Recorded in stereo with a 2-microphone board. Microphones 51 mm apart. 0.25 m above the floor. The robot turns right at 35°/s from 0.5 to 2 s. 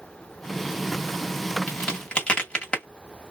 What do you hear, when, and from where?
1.7 s a crack: 20° left (ahead or behind), 1.7 m